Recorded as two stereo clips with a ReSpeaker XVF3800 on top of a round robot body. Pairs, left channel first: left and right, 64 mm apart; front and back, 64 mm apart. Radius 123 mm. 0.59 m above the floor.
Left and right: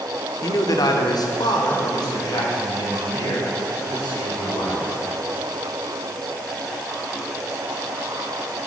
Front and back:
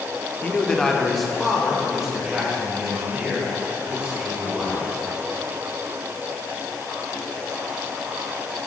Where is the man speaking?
65° left, 1.2 m; by 5.0 s 105° left, 6 m.